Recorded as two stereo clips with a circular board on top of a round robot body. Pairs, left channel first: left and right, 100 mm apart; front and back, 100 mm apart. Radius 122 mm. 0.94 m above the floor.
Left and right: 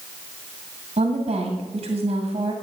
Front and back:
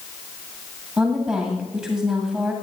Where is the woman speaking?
110° right, 2 m.